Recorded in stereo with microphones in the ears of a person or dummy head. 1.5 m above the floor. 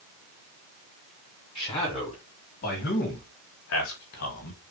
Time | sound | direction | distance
1.6 | a man speaking | 30° left (ahead or behind) | 2.5 m